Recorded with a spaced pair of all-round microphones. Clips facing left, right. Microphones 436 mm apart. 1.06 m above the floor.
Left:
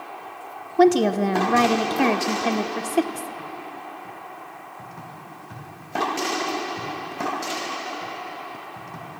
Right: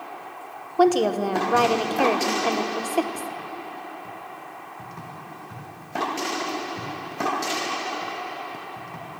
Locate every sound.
0.8 s a woman speaking: 40° left (ahead or behind), 0.5 m